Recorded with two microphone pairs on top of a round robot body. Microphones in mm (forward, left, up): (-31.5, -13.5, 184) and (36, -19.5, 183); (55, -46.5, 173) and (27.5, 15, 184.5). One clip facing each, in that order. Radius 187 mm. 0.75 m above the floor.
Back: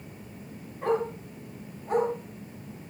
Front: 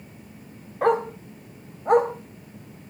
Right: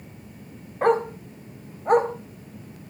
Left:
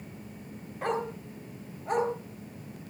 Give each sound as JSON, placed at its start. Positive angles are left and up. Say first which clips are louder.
{"t": 0.8, "sound": "a dog barking", "louder": "front 6 dB, right 10 dB", "azimuth_deg": -20, "distance_m": 2.5}